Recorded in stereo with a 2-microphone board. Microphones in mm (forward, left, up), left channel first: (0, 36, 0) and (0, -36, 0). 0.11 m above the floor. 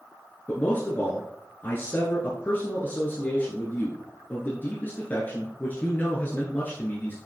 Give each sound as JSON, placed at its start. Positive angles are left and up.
{"t": 0.5, "sound": "a man speaking", "side_deg": 30, "distance_m": 1.4}